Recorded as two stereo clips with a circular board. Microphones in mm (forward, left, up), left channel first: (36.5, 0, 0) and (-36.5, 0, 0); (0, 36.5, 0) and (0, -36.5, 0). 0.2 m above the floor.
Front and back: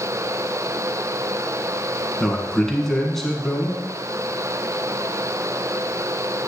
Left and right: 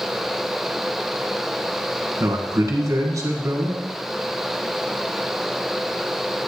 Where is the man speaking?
80° right, 1.5 m.